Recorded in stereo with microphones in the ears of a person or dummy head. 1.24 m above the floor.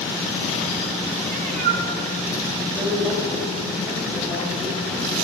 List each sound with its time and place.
1.2 s a cat meowing: 45° right (ahead or behind), 2 m
2.7 s a woman speaking: centre (ahead or behind), 7 m